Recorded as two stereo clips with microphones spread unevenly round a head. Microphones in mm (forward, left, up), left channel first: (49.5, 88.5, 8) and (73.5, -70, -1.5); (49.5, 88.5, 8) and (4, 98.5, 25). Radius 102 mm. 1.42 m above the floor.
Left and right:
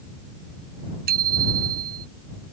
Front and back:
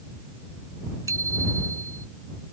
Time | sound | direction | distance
1.1 | a bicycle bell | 135° right | ?